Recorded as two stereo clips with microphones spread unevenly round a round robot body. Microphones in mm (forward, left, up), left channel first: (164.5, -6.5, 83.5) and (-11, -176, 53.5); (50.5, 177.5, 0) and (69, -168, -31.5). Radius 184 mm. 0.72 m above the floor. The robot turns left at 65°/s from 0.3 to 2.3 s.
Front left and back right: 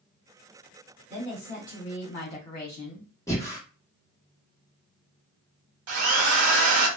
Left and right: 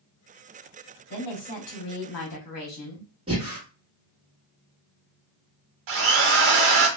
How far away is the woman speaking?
About 1.2 m.